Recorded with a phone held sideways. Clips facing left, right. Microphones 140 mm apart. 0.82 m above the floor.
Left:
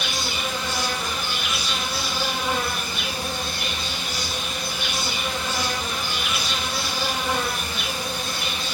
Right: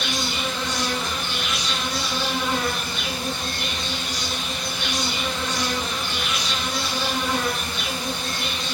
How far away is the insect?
About 5.5 m.